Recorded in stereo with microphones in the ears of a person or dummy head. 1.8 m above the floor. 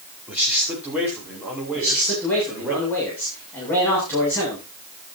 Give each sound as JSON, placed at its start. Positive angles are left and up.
{"t": 0.3, "sound": "a man speaking", "side_deg": -10, "distance_m": 5.0}
{"t": 1.7, "sound": "a man speaking", "side_deg": 10, "distance_m": 8.5}